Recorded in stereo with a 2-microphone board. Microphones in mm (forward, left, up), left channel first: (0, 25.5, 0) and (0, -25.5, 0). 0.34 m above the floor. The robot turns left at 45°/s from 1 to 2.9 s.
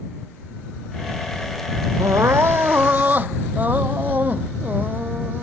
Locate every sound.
2.0 s crying: 105° right; by 5.5 s 145° right